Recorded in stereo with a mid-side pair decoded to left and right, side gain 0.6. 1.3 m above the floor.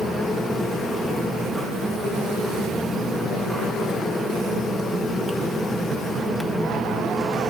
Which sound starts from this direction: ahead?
A fan, at 0.0 s.